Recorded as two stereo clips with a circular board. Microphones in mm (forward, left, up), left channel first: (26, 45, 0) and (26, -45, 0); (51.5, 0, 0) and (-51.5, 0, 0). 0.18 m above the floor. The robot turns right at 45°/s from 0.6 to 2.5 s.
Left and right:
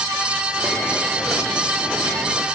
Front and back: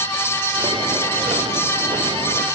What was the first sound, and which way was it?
Only background noise.